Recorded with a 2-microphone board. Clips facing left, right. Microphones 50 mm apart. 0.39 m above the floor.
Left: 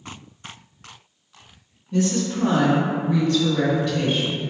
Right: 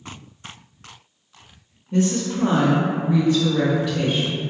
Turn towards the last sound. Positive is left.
turn(degrees=-5)  # may be behind; listen again after turning